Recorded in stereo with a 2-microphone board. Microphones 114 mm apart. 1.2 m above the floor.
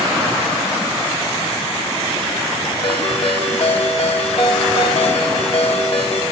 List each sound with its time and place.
2.8 s a ringtone: 60° left (ahead or behind), 1.0 m